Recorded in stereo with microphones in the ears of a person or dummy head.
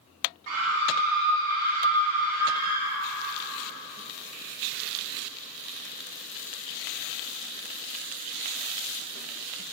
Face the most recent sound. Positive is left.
turn(degrees=-65)  # may be behind; listen again after turning